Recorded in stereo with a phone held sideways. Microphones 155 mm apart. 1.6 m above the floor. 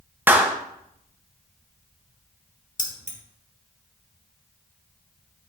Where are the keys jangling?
55° left (ahead or behind), 1.7 m.